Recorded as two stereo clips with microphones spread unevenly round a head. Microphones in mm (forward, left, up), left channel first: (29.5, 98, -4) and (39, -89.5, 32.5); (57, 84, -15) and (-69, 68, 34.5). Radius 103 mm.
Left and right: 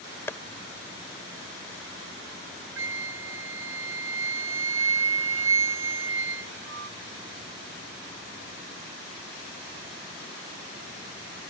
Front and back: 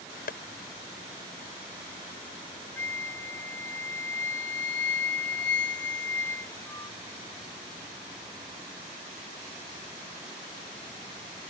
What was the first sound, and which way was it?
Tapping, 10° left.